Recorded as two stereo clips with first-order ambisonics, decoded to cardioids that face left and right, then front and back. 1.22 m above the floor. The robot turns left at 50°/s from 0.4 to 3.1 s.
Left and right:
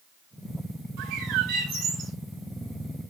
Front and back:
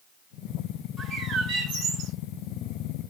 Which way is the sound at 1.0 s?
80° right.